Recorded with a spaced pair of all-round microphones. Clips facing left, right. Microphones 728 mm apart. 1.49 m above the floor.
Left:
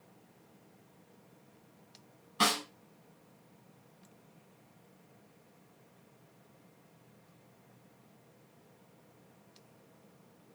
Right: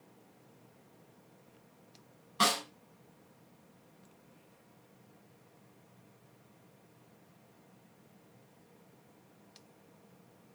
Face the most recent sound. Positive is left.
turn(degrees=-5)  # may be behind; listen again after turning